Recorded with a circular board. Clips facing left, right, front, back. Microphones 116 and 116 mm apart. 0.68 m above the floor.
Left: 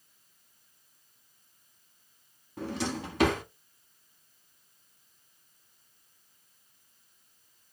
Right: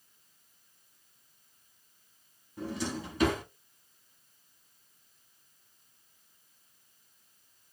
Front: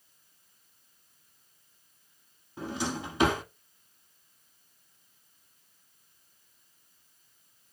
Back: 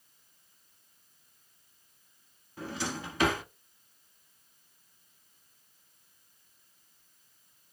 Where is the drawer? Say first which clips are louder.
Left 2 dB, front 3 dB; 70° left, 0.8 m.